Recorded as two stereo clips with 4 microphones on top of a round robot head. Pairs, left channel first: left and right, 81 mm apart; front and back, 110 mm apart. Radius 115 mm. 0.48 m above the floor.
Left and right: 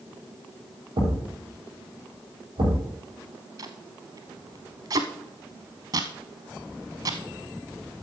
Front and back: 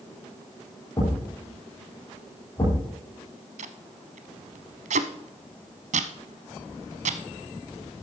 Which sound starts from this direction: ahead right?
A thud, at 1.0 s.